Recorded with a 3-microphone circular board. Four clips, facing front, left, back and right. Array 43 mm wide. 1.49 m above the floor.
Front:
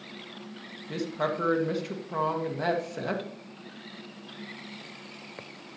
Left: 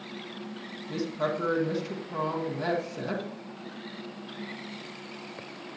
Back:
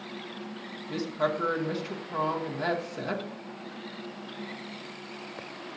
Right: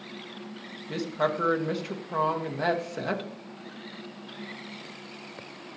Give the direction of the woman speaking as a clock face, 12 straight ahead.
2 o'clock.